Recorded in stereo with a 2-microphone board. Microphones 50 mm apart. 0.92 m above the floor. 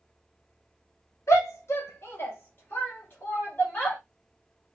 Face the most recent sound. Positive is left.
turn(degrees=35)  # may be behind; listen again after turning